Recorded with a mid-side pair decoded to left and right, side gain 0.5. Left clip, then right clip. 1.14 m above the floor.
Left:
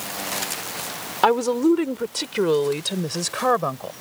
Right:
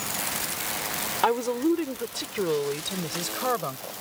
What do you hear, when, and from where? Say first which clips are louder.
1.2 s a woman speaking: left 6 dB; 35° left; by 3.9 s 45° left